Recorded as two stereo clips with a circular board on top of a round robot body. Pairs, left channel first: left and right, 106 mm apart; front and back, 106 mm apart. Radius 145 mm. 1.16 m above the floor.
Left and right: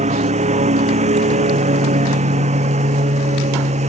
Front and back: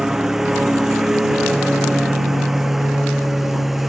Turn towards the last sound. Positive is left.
turn(degrees=-90)